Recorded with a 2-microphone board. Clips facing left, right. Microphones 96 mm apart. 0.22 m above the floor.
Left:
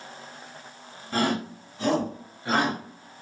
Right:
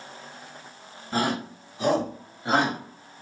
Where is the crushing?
I don't hear crushing.